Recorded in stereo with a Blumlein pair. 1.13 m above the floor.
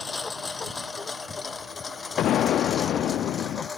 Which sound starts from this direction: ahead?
A lawn mower, at 0.0 s.